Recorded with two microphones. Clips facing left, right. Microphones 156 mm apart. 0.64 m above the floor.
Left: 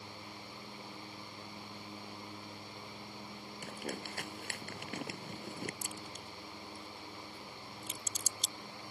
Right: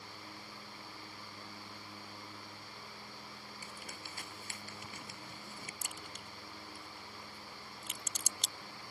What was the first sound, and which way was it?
Crumpling, 65° left (ahead or behind).